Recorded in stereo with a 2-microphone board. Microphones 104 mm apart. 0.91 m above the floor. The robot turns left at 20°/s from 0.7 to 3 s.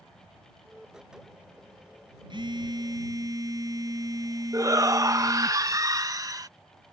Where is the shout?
35° right (ahead or behind).